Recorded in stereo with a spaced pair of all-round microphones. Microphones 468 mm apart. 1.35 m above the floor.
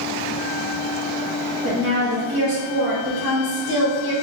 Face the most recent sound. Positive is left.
turn(degrees=-45)  # may be behind; listen again after turning